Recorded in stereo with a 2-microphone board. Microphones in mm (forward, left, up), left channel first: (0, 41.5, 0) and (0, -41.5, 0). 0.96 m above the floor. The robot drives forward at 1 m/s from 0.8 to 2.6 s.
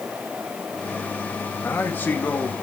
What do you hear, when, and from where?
1.6 s a man speaking: 30° left (ahead or behind), 1.5 m; by 2.6 s 15° left (ahead or behind), 2.5 m